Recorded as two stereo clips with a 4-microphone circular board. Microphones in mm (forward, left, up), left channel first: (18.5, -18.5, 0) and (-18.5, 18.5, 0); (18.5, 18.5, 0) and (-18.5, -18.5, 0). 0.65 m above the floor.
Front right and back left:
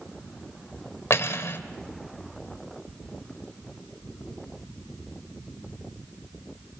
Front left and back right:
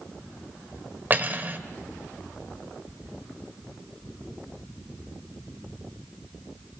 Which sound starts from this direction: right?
Cutlery clinking, at 1.1 s.